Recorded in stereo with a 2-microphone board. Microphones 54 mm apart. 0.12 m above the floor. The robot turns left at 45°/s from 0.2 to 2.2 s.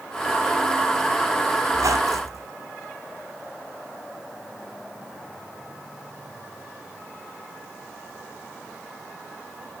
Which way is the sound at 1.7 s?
70° right (ahead or behind).